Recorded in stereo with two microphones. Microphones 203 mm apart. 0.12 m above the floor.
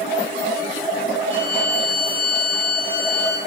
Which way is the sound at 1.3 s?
40° left (ahead or behind).